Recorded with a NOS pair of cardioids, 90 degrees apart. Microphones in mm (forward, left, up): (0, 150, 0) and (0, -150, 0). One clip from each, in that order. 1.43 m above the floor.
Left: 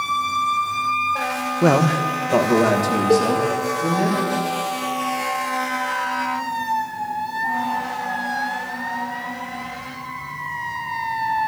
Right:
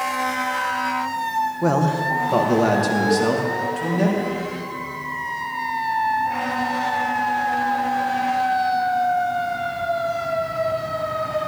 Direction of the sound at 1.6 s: 35° left.